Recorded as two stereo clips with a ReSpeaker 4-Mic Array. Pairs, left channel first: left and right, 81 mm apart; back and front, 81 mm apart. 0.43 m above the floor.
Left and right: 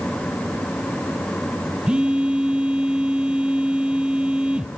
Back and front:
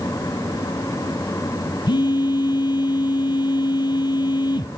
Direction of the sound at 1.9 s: 165° right.